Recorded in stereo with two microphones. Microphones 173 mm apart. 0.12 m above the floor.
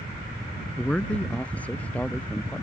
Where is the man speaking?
5° left (ahead or behind).